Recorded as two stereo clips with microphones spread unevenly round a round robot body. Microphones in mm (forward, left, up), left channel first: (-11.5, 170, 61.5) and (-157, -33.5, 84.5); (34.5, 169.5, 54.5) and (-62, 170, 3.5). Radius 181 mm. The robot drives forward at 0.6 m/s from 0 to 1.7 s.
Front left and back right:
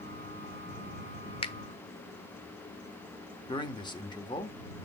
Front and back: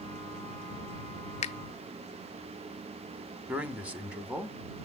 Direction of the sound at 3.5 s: 125° left.